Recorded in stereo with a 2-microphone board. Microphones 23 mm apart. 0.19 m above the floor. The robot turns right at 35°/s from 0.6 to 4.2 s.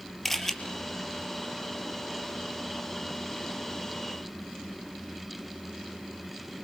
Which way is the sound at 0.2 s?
10° left (ahead or behind).